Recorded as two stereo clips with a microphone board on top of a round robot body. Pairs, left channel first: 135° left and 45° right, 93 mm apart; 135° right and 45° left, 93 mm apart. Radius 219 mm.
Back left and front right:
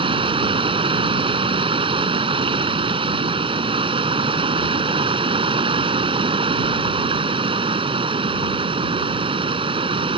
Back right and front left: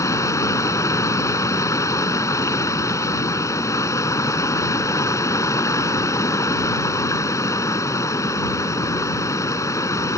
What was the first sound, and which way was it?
Running water, 75° right.